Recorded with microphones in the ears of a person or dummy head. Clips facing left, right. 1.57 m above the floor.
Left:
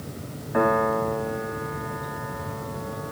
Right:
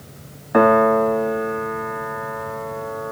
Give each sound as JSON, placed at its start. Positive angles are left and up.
{"t": 0.5, "sound": "a piano", "side_deg": -65, "distance_m": 0.6}